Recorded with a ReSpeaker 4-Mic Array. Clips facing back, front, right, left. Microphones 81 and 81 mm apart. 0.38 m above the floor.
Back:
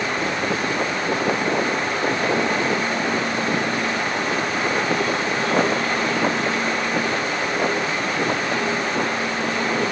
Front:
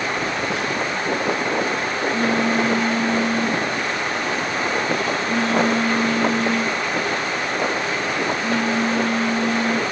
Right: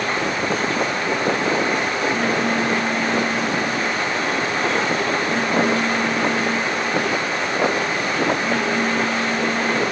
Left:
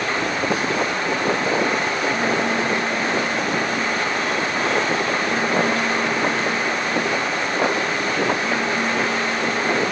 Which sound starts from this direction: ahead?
A phone buzzing, at 0.2 s.